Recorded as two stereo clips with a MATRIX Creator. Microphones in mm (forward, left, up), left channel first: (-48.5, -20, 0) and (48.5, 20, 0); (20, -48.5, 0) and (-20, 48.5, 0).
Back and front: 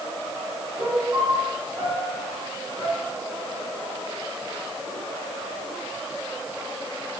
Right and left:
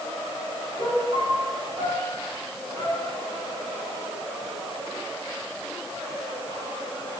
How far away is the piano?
About 5.5 m.